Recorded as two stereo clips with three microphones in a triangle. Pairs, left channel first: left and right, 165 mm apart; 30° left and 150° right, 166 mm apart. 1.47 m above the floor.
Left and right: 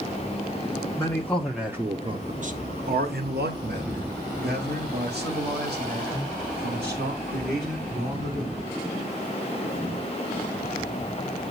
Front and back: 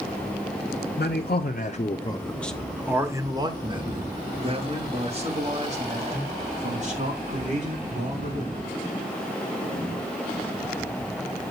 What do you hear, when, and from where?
1.0 s a man speaking: 20° left, 0.9 m; by 8.7 s 105° right, 5 m